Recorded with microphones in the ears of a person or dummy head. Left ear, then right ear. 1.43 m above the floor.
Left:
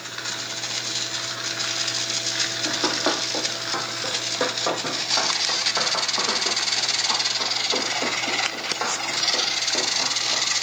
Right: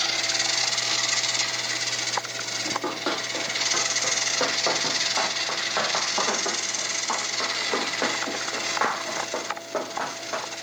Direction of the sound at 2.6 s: 25° left (ahead or behind).